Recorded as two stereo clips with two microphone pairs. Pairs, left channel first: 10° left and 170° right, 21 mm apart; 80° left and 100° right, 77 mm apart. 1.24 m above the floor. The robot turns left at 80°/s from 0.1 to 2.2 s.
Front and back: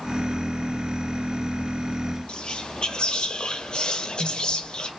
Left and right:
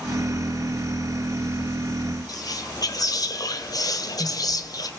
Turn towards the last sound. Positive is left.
turn(degrees=55)